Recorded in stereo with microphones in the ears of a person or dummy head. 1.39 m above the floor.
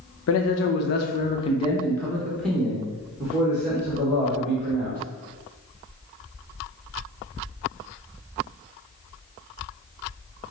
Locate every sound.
0.3 s a man speaking: 75° left (ahead or behind), 0.8 m; by 5.0 s 25° right (ahead or behind), 2 m